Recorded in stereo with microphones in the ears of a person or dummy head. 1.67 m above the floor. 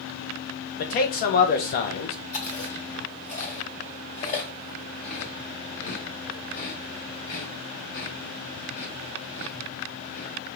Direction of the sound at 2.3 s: 35° left (ahead or behind).